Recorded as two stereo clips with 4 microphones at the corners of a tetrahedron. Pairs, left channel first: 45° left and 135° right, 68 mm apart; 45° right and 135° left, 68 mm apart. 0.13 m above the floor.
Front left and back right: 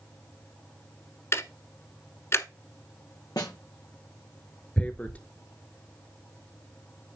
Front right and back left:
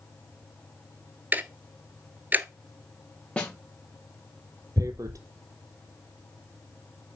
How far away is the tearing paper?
About 0.9 m.